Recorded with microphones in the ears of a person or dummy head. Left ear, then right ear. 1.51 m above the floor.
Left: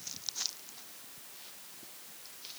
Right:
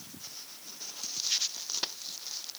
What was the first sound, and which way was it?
Only background noise.